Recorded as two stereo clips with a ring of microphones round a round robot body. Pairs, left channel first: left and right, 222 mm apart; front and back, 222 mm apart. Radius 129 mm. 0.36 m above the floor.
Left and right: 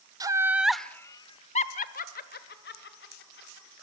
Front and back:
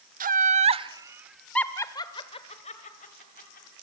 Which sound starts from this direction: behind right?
Laughter, at 0.2 s.